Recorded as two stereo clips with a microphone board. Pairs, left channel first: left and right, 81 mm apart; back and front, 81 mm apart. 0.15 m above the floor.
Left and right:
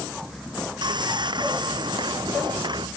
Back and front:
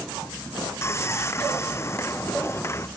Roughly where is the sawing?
Behind right.